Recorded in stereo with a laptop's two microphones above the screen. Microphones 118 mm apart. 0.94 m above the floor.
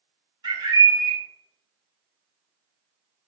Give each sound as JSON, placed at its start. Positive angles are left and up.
{"t": 0.4, "sound": "a bird", "side_deg": -40, "distance_m": 1.0}